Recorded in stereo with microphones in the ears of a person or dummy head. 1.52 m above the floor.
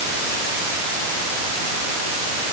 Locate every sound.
Only background noise.